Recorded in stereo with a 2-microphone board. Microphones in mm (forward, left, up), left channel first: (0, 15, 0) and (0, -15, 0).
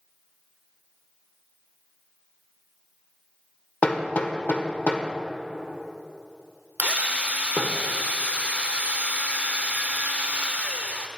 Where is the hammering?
55° left (ahead or behind), 0.7 m.